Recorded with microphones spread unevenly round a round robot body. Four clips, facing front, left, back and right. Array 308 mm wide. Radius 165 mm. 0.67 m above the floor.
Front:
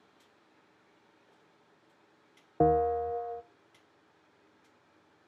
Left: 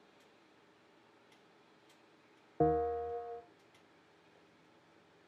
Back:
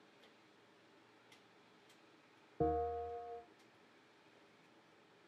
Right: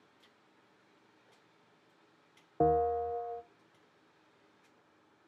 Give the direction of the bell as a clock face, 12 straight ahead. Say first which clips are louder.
Right 3 dB, front 12 dB; 12 o'clock.